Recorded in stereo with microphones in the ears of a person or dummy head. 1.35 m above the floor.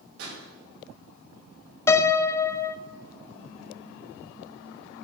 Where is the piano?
20° left (ahead or behind), 0.6 m.